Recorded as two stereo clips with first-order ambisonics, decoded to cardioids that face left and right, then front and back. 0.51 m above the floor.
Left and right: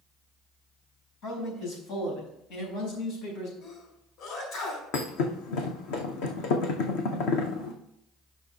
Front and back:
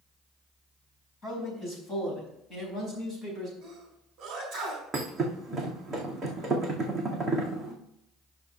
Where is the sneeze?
120° left, 4 m.